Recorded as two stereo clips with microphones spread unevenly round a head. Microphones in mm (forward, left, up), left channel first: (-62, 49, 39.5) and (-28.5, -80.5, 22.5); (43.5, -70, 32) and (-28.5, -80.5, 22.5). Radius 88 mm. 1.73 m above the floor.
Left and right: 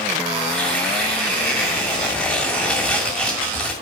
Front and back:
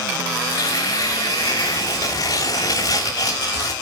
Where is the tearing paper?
25° left, 2.5 m.